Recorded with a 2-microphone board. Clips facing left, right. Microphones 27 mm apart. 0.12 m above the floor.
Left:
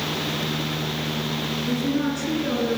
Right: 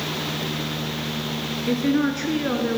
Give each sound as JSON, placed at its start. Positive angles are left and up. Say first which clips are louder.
{"t": 1.7, "sound": "a woman speaking", "louder": "right 4 dB", "side_deg": -40, "distance_m": 2.0}